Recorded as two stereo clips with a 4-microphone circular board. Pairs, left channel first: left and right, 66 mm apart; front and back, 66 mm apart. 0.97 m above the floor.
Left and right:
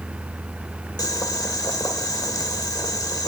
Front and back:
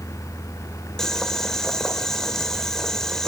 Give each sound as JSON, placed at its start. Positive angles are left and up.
{"t": 1.0, "sound": "boiling", "azimuth_deg": 80, "distance_m": 1.9}